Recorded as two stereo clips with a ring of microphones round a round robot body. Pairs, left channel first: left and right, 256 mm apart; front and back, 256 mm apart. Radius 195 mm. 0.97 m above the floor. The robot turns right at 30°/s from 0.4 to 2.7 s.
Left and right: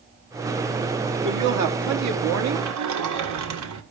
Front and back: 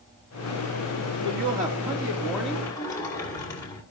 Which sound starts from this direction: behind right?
A woman speaking, at 1.2 s.